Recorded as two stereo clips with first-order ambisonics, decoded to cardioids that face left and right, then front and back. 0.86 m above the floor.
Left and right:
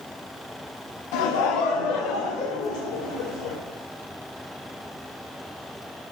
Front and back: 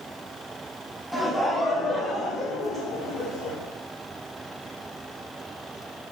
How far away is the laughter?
About 1.0 m.